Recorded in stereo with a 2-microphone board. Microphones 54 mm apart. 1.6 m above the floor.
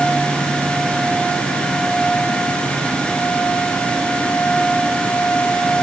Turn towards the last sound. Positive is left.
No sound to turn to.